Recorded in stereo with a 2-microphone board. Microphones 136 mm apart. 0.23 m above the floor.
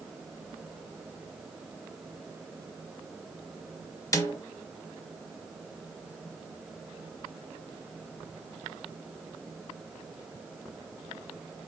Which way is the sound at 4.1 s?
25° left (ahead or behind).